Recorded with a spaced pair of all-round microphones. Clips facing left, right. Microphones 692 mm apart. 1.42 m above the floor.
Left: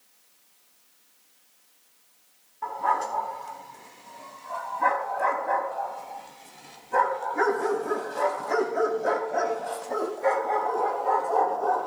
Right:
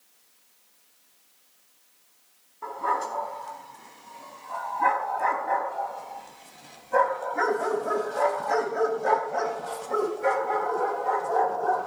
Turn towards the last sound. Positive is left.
turn(degrees=-50)  # may be behind; listen again after turning